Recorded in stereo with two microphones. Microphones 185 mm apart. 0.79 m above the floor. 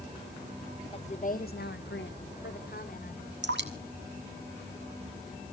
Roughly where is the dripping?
Right.